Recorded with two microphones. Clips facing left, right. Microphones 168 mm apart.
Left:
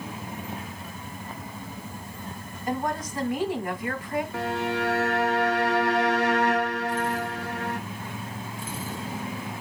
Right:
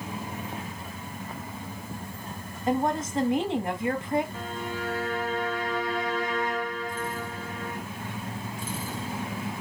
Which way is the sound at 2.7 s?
25° right (ahead or behind).